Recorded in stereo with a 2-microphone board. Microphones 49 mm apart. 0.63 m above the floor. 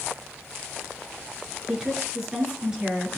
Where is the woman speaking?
10° right (ahead or behind), 7 m.